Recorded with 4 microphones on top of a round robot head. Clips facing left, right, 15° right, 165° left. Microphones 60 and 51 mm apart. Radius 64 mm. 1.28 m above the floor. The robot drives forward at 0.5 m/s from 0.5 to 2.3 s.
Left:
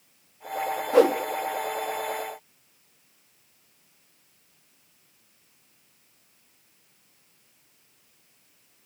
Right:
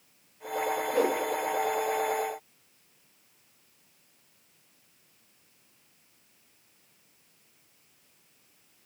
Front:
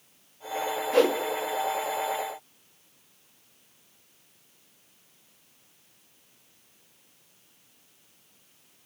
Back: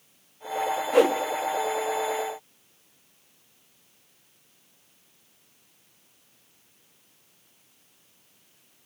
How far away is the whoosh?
About 0.8 m.